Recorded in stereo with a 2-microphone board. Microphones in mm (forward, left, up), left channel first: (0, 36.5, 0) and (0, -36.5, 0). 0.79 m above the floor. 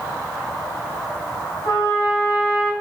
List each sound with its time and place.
1.6 s a trumpet: 50° left (ahead or behind), 4 m